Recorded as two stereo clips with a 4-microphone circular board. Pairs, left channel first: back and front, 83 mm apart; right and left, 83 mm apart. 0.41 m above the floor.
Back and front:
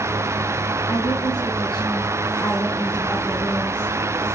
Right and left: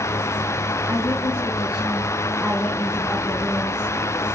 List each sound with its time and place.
0.9 s a woman speaking: 165° left, 5 m